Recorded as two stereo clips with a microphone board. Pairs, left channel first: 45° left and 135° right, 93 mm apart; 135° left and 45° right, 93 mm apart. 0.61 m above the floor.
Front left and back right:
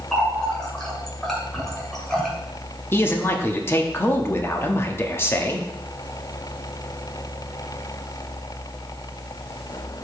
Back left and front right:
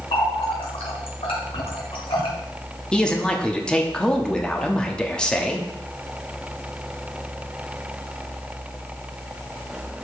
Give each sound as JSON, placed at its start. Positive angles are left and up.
{"t": 0.1, "sound": "a running tap", "azimuth_deg": 130, "distance_m": 2.0}
{"t": 2.9, "sound": "a man speaking", "azimuth_deg": 65, "distance_m": 0.9}